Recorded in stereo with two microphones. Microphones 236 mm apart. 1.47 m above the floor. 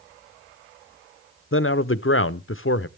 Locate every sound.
1.5 s a man speaking: 60° left (ahead or behind), 0.6 m